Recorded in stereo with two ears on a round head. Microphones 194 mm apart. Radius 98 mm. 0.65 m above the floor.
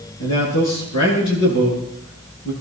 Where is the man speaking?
85° left, 7 m.